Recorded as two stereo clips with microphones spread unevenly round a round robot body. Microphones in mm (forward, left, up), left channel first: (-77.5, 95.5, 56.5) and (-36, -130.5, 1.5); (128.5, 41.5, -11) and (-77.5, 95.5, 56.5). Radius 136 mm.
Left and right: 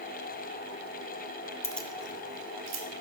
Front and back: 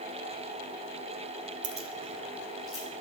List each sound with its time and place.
1.6 s keys jangling: 165° left, 0.6 m; by 2.8 s 100° right, 1.9 m